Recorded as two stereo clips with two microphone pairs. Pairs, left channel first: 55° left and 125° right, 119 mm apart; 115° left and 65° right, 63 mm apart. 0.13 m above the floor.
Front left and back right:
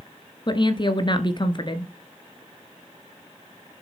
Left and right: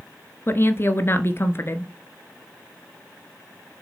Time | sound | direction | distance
0.5 | a woman speaking | 85° left | 1.5 m